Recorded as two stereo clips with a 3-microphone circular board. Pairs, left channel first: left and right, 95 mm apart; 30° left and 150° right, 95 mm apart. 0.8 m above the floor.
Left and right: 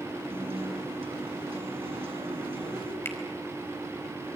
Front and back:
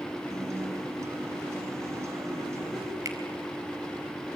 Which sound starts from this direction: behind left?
A finger snap, at 3.0 s.